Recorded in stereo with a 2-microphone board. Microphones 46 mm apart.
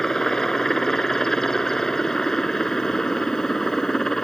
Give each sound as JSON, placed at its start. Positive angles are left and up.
{"t": 0.0, "sound": "a helicopter", "side_deg": 15}